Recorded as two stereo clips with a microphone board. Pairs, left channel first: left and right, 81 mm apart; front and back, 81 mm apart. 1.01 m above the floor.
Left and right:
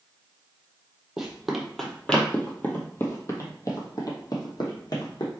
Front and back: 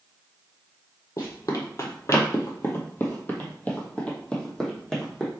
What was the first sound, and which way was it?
Running footsteps, 10° right.